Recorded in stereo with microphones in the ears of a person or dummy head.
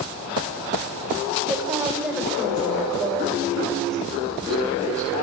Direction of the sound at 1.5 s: 10° right (ahead or behind).